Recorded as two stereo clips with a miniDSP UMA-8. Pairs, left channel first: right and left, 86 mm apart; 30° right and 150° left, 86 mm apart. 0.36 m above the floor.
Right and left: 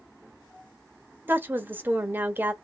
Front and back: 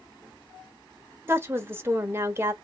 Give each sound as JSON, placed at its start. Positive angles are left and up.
{"t": 1.3, "sound": "a woman speaking", "azimuth_deg": 130, "distance_m": 1.0}